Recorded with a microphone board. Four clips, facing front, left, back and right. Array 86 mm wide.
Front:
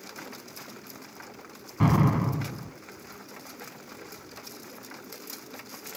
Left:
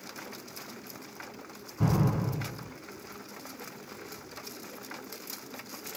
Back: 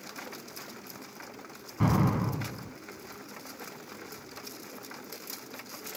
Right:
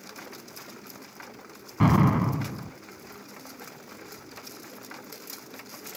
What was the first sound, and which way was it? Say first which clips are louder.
An explosion: right 7 dB, front 3 dB; 70° right.